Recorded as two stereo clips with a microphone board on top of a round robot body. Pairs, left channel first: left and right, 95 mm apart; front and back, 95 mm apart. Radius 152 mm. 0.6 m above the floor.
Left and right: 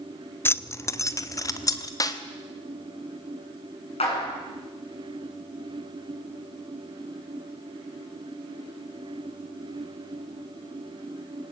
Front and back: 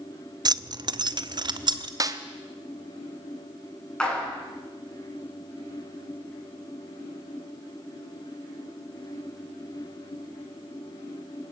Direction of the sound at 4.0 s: 80° left.